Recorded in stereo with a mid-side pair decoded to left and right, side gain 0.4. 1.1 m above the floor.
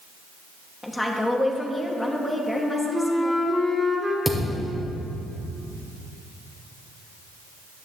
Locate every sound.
0.8 s a woman speaking: 15° left, 1.5 m
2.5 s a flute: 10° right, 2.0 m
4.2 s a thud: 5° left, 1.6 m